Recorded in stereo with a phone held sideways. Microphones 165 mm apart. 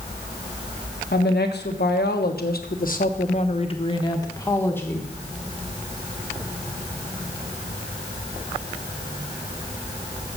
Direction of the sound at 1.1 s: 80° left.